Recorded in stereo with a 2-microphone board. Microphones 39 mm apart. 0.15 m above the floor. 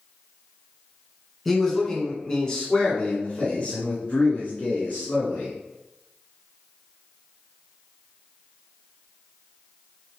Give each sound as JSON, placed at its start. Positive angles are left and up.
{"t": 1.4, "sound": "a man speaking", "side_deg": 5, "distance_m": 1.7}